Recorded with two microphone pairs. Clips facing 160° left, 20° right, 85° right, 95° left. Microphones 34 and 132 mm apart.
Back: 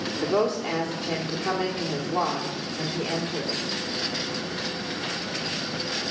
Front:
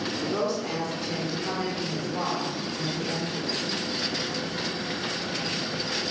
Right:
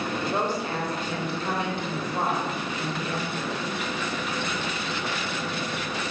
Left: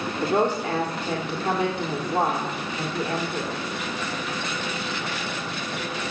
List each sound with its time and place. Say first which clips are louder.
0.2 s a woman speaking: back 5 dB, left 7 dB; 100° left, 1.8 m